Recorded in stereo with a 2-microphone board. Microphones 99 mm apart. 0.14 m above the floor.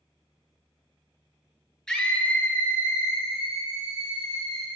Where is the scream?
5° left (ahead or behind), 2.5 m; by 4.7 s 40° left (ahead or behind), 5.5 m.